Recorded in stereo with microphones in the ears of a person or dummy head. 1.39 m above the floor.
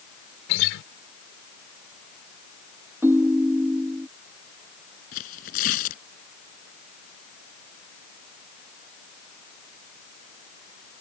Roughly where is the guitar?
Left.